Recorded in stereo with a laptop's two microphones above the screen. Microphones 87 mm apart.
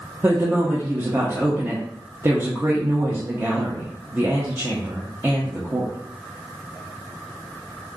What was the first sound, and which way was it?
A woman speaking, 25° right (ahead or behind).